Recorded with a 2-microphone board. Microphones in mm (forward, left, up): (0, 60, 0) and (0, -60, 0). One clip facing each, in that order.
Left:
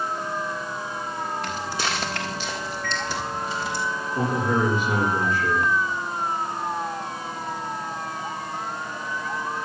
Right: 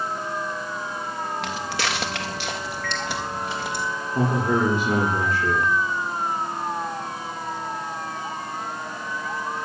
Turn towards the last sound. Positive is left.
turn(degrees=-45)  # may be behind; listen again after turning